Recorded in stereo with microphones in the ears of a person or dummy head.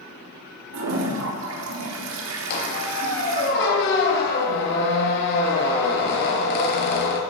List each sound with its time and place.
0.7 s a toilet flushing: 85° right, 3.5 m
2.5 s a squeak: 65° left (ahead or behind), 5 m